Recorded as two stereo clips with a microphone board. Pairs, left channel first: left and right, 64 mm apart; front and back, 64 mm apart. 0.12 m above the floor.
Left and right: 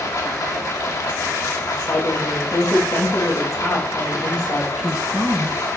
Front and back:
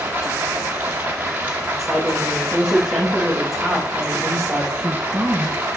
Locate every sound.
0.0 s running water: 120° left, 3 m
1.8 s a woman speaking: 95° left, 5 m
4.8 s a woman speaking: 150° right, 1.2 m